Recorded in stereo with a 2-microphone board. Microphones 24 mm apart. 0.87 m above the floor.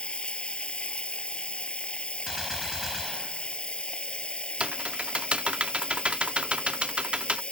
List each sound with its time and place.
0.0 s running water: 45° left (ahead or behind)
2.3 s a gunshot: 15° right (ahead or behind)
4.6 s typing on a keyboard: 50° right (ahead or behind)